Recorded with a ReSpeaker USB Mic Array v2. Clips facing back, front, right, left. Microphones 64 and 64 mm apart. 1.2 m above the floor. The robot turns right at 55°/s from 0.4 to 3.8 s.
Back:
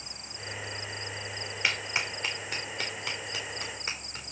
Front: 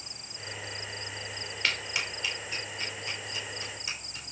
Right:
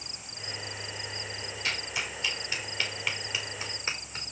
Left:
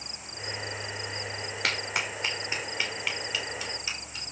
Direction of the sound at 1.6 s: 100° left.